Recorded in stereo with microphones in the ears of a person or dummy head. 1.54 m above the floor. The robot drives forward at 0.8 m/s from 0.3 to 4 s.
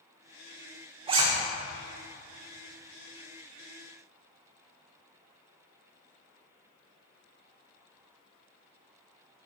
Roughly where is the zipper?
Right.